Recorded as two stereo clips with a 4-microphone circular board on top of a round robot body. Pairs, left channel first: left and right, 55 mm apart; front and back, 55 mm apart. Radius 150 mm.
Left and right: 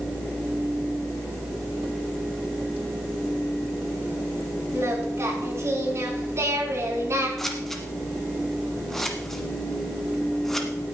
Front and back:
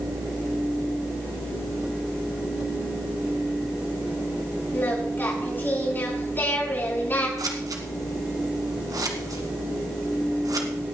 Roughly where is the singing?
Ahead right.